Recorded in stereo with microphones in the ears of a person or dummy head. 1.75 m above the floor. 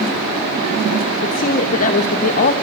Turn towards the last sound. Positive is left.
turn(degrees=45)  # may be behind; listen again after turning